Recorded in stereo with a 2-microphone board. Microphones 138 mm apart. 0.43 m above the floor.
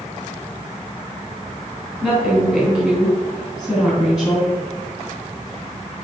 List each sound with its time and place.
2.0 s a woman speaking: 10° right (ahead or behind), 2.5 m